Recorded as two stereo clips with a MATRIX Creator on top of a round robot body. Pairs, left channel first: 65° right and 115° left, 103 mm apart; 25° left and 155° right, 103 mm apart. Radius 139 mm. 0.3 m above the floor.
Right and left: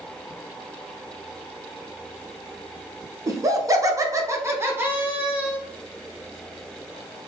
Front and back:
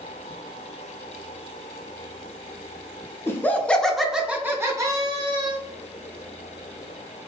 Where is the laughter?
75° left, 1.0 m; by 5.6 s 175° right, 1.2 m.